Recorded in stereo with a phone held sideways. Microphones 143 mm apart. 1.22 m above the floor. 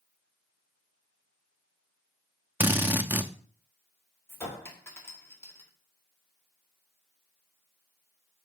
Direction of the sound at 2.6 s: 15° right (ahead or behind).